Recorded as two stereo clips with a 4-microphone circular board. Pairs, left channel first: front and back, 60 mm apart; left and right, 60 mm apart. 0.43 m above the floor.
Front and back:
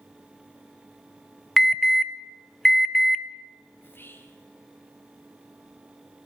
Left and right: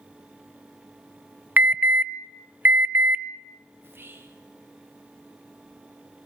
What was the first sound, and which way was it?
An alarm, 85° right.